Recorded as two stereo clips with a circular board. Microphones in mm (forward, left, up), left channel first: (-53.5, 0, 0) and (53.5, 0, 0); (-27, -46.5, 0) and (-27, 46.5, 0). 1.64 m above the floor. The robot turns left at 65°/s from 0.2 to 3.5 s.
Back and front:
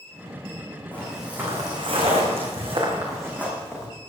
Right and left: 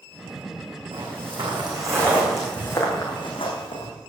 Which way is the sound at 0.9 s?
105° left.